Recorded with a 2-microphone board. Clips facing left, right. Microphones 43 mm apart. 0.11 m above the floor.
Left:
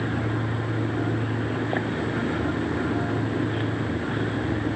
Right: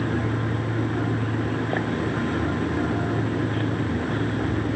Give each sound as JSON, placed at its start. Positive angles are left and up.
{"t": 0.0, "sound": "an insect", "side_deg": 25, "distance_m": 1.3}